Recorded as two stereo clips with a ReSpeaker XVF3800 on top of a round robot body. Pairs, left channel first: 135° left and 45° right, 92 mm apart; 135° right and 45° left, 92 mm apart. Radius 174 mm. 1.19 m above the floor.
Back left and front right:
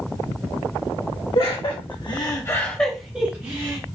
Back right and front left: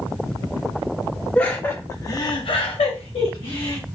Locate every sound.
1.4 s laughter: 150° left, 1.5 m; by 3.8 s 100° right, 1.4 m